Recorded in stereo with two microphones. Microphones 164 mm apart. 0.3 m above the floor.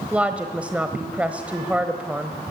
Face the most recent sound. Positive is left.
turn(degrees=-10)  # may be behind; listen again after turning